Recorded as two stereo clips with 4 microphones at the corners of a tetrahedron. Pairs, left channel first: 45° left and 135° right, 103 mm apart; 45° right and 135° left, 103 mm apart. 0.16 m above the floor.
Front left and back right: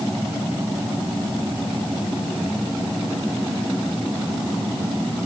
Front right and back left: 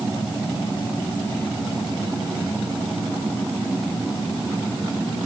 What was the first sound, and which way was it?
Only background noise.